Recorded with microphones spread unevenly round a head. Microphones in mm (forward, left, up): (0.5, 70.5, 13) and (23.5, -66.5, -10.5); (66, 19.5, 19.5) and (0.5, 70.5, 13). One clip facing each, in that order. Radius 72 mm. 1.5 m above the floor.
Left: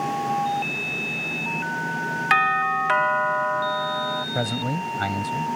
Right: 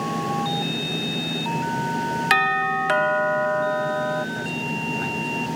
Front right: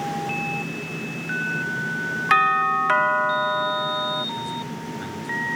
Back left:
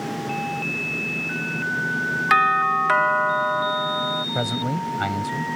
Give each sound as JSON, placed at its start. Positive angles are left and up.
{"t": 2.3, "sound": "a doorbell", "azimuth_deg": -130}
{"t": 4.3, "sound": "a man speaking", "azimuth_deg": 125}